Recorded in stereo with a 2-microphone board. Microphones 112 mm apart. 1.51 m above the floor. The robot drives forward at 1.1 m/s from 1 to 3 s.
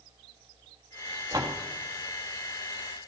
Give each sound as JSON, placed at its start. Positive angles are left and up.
{"t": 1.3, "sound": "a door slam", "side_deg": -35, "distance_m": 1.5}